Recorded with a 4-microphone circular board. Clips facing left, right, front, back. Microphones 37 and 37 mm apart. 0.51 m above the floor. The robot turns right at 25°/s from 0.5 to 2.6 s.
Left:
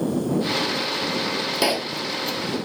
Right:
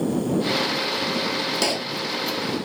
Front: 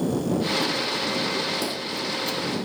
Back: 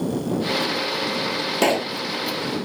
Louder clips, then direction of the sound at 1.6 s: Left 2 dB, back 9 dB; 165° left.